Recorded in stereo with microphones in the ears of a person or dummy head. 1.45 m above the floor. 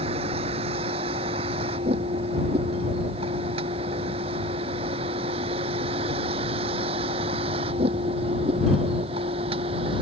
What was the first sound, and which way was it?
A vehicle, 30° right (ahead or behind).